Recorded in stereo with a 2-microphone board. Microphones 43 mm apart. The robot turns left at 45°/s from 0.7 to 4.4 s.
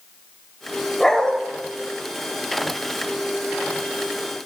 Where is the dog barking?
5° left (ahead or behind), 2 m; by 1.4 s 20° left (ahead or behind), 2 m.